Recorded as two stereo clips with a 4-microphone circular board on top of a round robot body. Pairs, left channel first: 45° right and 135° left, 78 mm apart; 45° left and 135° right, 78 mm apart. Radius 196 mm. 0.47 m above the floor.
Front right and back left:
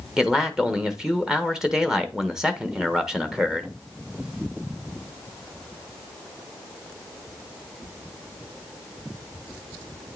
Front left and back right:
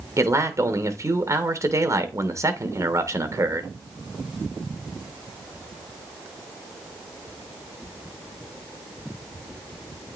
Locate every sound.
0.2 s a man speaking: 145° right, 1.3 m